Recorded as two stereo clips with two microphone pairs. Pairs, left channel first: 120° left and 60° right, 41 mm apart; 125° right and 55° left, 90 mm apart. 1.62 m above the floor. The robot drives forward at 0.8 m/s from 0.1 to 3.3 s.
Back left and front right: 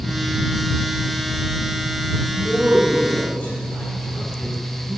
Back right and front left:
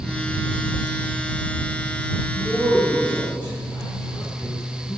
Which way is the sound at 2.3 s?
160° left.